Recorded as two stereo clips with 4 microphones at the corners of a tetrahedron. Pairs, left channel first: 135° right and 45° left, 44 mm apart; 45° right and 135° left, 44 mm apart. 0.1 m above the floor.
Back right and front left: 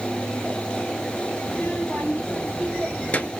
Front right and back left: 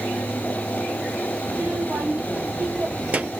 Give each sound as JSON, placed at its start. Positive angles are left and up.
{"t": 1.4, "sound": "a child speaking", "azimuth_deg": 175, "distance_m": 2.0}